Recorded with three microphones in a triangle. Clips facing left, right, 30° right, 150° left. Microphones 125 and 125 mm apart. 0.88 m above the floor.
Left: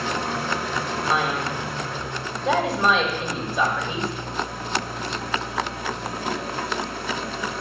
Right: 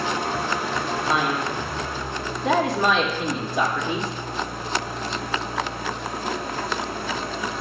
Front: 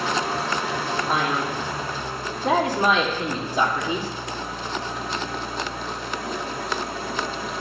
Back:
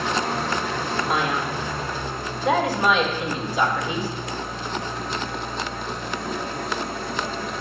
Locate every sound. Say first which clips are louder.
0.0 s an engine running: right 1 dB, even; 110° right, 2 m
1.1 s a man speaking: even, even; 75° right, 2.5 m